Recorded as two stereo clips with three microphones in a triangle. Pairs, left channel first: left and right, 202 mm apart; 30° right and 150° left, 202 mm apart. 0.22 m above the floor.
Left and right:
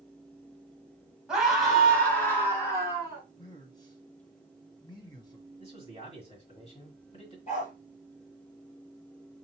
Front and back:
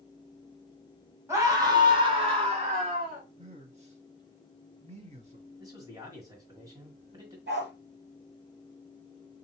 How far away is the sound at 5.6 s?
About 1.8 m.